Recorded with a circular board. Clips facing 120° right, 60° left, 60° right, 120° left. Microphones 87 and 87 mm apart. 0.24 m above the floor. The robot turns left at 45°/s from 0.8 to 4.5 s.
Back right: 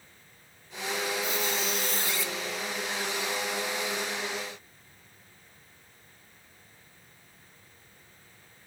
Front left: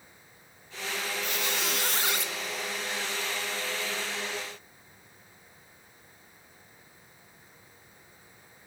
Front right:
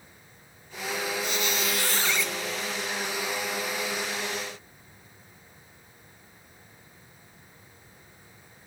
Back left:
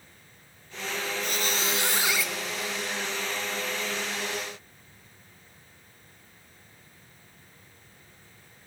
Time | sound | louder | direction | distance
1.2 | a squeak | back right 2 dB, front right 1 dB | 80° left | 0.6 m